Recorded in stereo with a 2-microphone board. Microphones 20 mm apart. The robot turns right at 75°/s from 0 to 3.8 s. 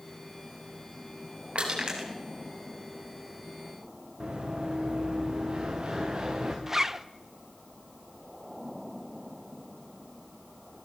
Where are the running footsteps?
60° right (ahead or behind), 6 m; by 6.6 s 45° right (ahead or behind), 4.5 m.